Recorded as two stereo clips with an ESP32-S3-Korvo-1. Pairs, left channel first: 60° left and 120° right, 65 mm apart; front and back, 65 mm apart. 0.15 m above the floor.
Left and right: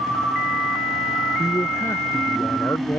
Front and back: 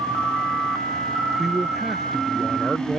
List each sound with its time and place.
1.4 s a man speaking: 95° left